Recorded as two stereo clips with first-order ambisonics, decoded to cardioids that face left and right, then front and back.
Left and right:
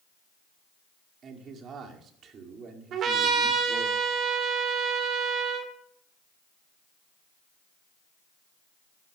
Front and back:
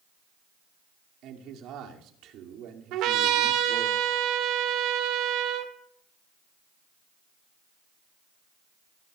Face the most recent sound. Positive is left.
turn(degrees=-145)